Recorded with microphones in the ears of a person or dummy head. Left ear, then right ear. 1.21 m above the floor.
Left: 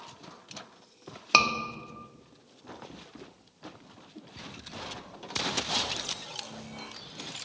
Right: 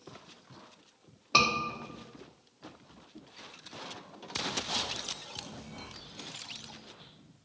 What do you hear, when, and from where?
1.3 s a scream: 70° left (ahead or behind), 1.0 m